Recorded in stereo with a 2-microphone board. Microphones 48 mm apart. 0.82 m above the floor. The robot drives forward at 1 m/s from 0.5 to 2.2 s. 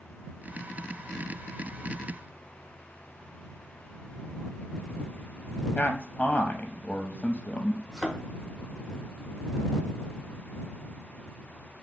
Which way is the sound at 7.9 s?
5° right (ahead or behind).